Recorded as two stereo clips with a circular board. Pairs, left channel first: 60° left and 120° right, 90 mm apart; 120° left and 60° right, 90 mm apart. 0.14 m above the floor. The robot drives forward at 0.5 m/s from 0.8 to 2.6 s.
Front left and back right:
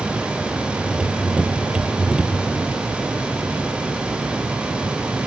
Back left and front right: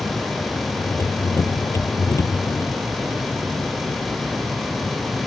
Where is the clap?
I don't hear a clap.